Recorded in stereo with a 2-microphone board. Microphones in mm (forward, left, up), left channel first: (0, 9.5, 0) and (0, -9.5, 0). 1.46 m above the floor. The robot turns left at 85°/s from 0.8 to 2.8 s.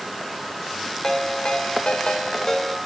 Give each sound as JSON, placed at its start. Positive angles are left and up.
{"t": 1.0, "sound": "a ringtone", "azimuth_deg": 150, "distance_m": 2.5}